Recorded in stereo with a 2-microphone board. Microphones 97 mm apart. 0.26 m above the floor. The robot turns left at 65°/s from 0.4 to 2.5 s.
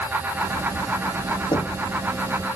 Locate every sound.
1.5 s knocking: 55° left (ahead or behind); by 1.8 s 35° left (ahead or behind)